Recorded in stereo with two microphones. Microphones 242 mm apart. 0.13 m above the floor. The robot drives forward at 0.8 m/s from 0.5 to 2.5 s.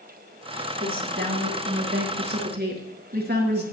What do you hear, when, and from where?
0.8 s a woman speaking: 40° right (ahead or behind), 2.5 m; by 3.6 s 45° right (ahead or behind), 2 m